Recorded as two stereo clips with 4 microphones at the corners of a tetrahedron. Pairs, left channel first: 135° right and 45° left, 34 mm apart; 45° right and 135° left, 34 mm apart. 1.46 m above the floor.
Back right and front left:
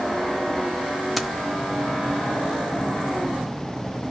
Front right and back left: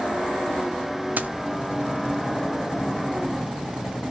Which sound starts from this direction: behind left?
Keys jangling, at 1.2 s.